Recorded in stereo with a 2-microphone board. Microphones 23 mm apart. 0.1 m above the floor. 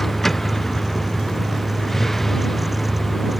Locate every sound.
0.0 s a vehicle: 15° left (ahead or behind)